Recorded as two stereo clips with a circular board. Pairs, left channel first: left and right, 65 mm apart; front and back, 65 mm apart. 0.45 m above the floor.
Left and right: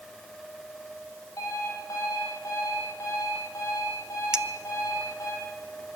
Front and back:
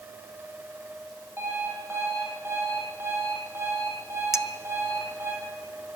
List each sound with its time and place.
1.4 s an alarm clock: 125° left, 7.5 m
4.3 s a clink: 15° right, 0.9 m